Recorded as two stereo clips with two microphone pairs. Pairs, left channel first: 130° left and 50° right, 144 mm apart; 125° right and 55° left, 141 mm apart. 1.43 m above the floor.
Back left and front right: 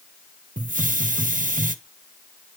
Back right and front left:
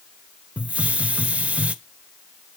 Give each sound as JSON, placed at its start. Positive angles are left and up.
{"t": 0.6, "sound": "a hiss", "azimuth_deg": -30, "distance_m": 0.6}